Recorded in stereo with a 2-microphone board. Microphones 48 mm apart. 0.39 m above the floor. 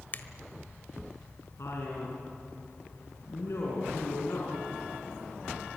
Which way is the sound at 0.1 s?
45° left (ahead or behind).